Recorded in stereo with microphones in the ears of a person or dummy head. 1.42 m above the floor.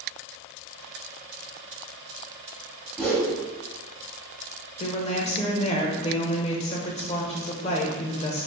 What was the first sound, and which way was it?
A whoosh, centre (ahead or behind).